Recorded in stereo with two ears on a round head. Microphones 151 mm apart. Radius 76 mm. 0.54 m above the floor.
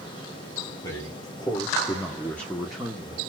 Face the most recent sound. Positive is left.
turn(degrees=-5)  # may be behind; listen again after turning